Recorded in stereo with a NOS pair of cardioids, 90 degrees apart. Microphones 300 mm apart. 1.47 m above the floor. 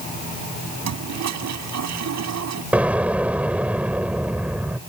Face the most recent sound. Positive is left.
turn(degrees=-5)